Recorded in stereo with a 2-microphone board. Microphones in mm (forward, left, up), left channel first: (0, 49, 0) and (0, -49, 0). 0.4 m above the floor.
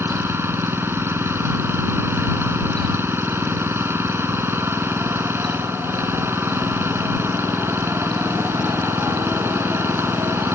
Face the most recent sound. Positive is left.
turn(degrees=-25)  # may be behind; listen again after turning